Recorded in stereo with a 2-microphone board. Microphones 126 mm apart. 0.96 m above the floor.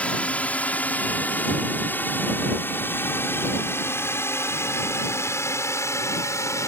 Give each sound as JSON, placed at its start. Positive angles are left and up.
{"t": 0.0, "sound": "a drone", "side_deg": 10}